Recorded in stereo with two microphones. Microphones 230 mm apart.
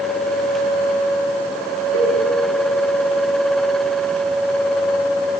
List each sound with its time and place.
1.9 s a cowbell: 75° left (ahead or behind), 1.4 m